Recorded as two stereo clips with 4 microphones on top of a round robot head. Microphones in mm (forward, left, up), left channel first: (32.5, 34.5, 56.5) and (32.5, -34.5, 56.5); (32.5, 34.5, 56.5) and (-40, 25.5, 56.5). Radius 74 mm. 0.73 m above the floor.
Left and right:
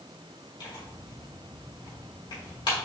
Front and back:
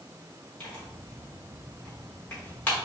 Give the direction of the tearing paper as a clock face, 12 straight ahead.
9 o'clock.